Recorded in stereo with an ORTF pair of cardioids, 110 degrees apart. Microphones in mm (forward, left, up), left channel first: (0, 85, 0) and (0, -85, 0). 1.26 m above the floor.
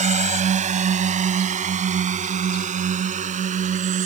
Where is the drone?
40° right; by 4.0 s 45° right.